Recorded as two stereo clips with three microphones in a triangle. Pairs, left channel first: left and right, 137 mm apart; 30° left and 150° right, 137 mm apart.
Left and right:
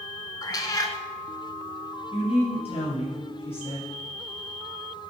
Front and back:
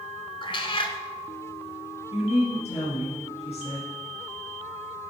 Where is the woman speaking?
55° left, 4 m.